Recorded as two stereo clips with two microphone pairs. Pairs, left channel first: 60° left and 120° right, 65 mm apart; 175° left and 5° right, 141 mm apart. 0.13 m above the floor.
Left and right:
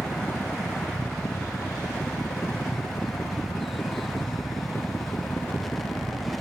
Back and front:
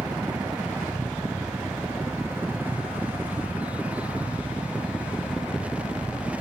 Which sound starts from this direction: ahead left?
A helicopter, at 0.0 s.